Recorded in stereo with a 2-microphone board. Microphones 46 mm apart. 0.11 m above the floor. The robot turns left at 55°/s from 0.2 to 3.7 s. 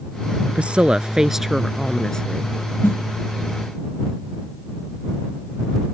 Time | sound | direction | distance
0.6 | a woman speaking | 120° right | ?
2.8 | a snare drum | 55° left (ahead or behind) | ?